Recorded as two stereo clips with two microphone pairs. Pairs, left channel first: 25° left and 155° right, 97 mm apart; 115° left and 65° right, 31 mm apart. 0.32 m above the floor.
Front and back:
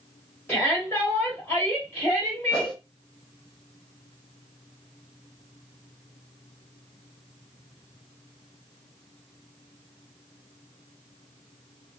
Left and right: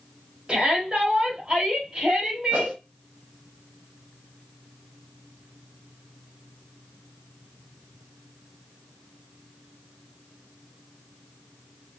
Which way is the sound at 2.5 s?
50° right.